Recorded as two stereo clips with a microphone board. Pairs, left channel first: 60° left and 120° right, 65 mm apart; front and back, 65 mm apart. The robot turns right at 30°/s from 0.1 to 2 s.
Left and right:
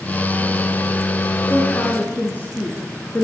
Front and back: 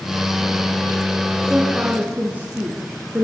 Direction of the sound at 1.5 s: 105° left.